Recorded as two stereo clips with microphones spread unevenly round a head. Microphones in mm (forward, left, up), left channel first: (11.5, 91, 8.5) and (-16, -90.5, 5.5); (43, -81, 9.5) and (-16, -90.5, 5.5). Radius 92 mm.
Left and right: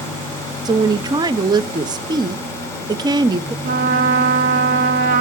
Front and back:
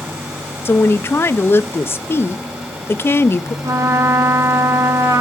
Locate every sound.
0.7 s a woman speaking: 35° right, 0.5 m
3.6 s a trumpet: 145° right, 1.3 m